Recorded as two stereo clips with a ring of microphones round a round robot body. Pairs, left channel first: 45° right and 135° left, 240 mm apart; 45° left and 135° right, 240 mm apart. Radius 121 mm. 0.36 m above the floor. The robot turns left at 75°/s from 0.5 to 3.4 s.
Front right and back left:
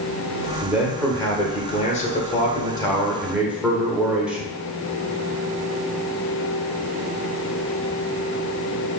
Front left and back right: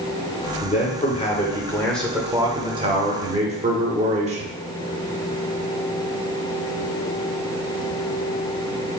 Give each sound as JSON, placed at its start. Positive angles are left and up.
{"t": 0.6, "sound": "a man speaking", "azimuth_deg": 65, "distance_m": 0.9}